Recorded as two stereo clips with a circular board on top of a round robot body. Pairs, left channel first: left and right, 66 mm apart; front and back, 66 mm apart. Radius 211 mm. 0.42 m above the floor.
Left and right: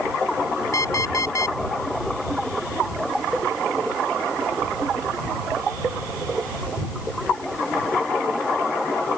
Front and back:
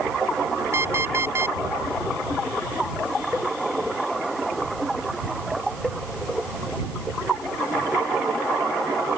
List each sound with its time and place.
0.7 s an alarm clock: 130° left